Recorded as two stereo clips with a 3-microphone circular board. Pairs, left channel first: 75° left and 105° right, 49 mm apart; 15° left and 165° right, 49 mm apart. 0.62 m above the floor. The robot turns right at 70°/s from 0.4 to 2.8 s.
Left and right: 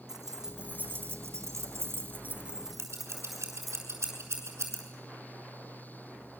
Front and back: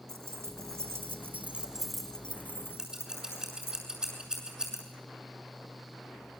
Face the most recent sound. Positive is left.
turn(degrees=-90)